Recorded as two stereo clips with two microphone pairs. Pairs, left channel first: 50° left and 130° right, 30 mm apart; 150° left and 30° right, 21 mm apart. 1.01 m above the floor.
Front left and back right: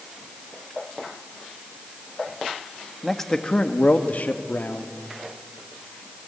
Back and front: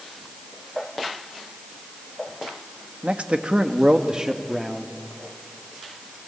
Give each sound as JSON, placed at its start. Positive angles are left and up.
{"t": 3.0, "sound": "a man speaking", "azimuth_deg": -40, "distance_m": 1.8}